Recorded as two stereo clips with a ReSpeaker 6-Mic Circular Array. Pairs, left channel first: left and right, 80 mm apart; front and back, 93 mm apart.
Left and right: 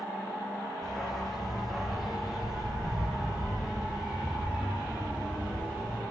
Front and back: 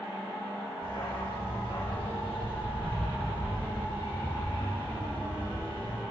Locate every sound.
0.8 s a dog barking: 5° left, 7 m; by 6.0 s 25° right, 9.5 m